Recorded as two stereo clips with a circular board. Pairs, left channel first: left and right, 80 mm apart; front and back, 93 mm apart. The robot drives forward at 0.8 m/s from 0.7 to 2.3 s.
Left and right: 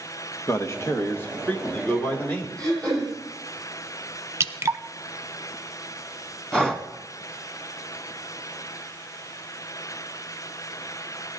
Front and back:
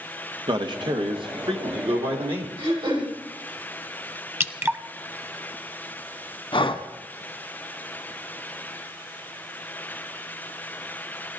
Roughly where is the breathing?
Ahead.